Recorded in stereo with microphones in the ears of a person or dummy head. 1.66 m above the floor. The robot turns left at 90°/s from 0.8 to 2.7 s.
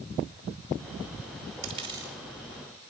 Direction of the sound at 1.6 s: 40° right (ahead or behind).